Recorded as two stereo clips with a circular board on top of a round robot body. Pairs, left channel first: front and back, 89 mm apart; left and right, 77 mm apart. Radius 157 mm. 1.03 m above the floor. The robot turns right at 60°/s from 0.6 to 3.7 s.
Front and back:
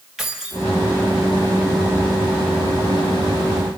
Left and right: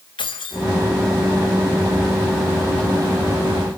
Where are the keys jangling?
95° left, 4 m.